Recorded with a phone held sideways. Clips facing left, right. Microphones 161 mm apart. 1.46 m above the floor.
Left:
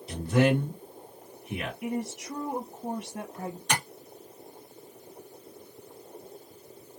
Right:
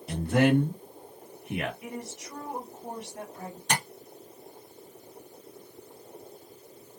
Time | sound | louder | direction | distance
0.1 | a man speaking | right 1 dB | 55° right (ahead or behind) | 1.3 m
1.8 | a woman speaking | left 7 dB | 55° left (ahead or behind) | 0.8 m
3.7 | tapping | right 1 dB | 35° right (ahead or behind) | 1.9 m